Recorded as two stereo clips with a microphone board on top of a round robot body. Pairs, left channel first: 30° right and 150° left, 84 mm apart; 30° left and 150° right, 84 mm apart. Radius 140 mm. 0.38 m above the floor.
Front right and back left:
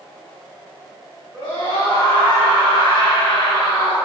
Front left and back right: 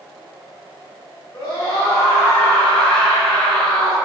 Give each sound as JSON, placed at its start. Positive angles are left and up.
{"t": 1.3, "sound": "a scream", "azimuth_deg": -15, "distance_m": 3.0}